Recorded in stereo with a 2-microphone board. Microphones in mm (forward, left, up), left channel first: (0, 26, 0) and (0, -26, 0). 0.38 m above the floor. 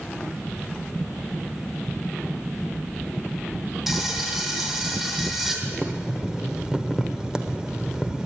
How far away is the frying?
About 2.5 m.